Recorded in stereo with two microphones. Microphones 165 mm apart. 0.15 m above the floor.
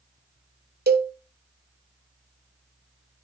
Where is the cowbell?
70° right (ahead or behind), 0.8 m.